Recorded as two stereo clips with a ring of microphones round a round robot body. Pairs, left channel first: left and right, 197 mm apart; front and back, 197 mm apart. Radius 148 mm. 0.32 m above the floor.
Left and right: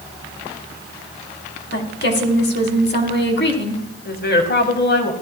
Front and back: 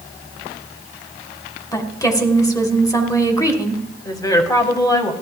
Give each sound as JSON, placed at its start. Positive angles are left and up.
{"t": 1.7, "sound": "a woman speaking", "azimuth_deg": 70, "distance_m": 2.5}
{"t": 4.0, "sound": "a woman speaking", "azimuth_deg": 70, "distance_m": 2.5}